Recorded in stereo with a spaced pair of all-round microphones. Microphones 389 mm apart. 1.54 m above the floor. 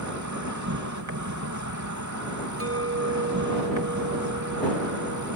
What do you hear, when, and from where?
0.0 s an insect: 50° right (ahead or behind)
2.6 s a clink: 35° right (ahead or behind)